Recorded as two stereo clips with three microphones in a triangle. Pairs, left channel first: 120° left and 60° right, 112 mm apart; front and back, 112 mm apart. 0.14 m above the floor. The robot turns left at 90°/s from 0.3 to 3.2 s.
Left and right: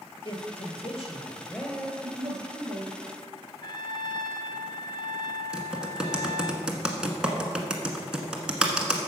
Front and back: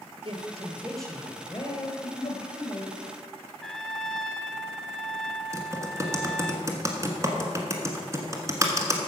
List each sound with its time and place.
0.2 s a man speaking: 150° left, 2.5 m; by 2.9 s 85° right, 2.5 m
1.9 s a giggle: straight ahead, 4.5 m; by 2.4 s 45° right, 4.5 m
3.6 s a trumpet: 85° left, 0.6 m
5.5 s typing on a keyboard: 140° right, 1.4 m